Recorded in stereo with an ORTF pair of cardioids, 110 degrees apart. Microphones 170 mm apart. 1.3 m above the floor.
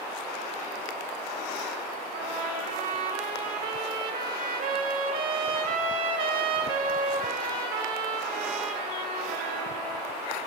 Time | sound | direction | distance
2.1 | a trumpet | 60° right | 3.5 m